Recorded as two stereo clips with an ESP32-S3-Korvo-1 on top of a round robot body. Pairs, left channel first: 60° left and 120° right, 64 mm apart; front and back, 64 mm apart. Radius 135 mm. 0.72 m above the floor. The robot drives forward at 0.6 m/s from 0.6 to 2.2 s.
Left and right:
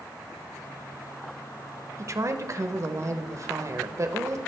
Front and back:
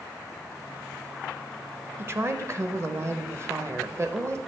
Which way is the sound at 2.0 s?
140° right.